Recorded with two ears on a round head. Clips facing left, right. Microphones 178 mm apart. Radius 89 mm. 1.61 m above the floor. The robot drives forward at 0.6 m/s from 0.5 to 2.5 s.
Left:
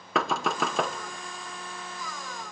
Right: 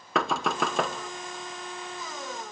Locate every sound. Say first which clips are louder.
0.1 s knocking: even; centre (ahead or behind), 0.6 m